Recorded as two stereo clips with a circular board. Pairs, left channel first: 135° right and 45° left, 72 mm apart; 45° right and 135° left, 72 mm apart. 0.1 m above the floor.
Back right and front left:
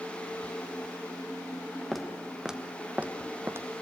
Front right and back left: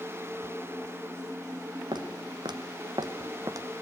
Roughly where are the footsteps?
Behind left.